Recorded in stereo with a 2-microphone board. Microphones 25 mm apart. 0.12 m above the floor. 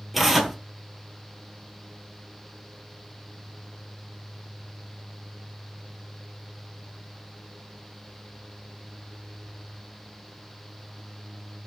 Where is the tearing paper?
Centre (ahead or behind), 0.8 m.